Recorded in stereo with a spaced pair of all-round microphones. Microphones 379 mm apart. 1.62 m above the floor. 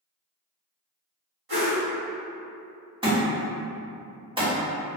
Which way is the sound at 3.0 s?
15° right (ahead or behind).